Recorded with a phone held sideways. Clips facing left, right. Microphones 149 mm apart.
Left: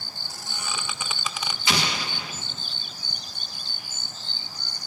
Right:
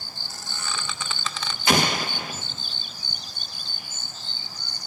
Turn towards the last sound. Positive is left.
turn(degrees=-50)  # may be behind; listen again after turning